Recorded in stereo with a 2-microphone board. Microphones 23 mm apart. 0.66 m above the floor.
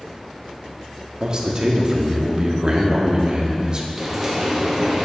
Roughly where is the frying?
Centre.